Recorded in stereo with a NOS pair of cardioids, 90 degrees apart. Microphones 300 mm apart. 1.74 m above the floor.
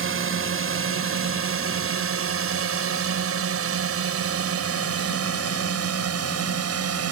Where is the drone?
45° right; by 7.1 s 50° right.